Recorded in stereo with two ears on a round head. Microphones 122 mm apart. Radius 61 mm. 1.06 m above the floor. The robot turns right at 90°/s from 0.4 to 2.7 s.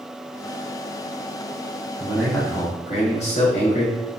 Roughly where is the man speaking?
Ahead.